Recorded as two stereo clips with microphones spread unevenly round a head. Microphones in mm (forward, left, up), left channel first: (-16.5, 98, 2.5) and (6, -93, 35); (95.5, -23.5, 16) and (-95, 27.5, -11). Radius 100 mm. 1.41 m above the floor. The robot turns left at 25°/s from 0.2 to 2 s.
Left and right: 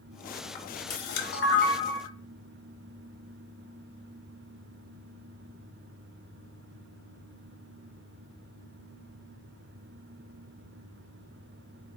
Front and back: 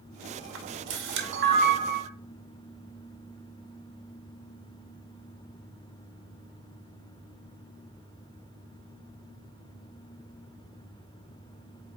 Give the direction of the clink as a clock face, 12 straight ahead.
No clink in this recording.